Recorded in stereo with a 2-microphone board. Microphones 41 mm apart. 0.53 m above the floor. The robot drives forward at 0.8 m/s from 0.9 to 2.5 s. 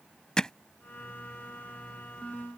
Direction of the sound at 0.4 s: 20° left (ahead or behind).